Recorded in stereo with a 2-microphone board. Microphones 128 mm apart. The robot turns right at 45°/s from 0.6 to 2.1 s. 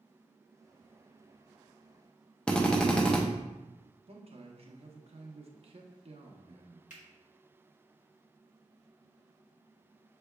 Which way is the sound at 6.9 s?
70° left (ahead or behind).